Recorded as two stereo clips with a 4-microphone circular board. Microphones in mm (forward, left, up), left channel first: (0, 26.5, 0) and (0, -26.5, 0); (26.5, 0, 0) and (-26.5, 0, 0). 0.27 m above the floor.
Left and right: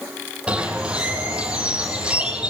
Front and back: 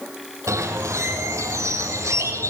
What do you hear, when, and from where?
0.5 s a bird: 160° right, 3 m